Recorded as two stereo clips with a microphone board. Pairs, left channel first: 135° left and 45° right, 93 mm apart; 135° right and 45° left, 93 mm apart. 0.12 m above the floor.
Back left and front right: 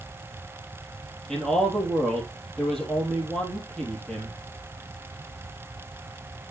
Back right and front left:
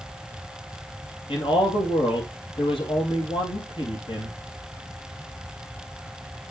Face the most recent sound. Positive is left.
turn(degrees=-140)